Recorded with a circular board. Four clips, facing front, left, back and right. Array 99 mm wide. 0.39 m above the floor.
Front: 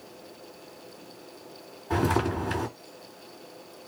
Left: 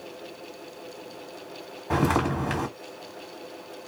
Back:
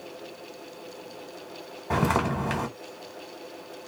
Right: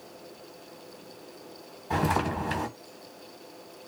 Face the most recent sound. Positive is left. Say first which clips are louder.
# left 3 dB, back 1 dB
turn(degrees=135)